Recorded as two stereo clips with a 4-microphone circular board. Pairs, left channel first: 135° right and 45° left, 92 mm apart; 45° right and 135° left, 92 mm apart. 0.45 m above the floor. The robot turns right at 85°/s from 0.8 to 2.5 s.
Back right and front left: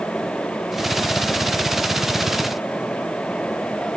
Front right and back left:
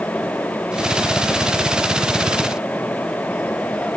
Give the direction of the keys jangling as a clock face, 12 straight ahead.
I don't hear keys jangling.